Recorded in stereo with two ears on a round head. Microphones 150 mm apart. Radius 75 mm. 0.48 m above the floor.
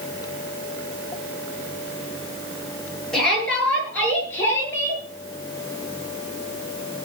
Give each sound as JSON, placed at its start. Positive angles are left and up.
{"t": 3.1, "sound": "a shout", "side_deg": 5, "distance_m": 9.0}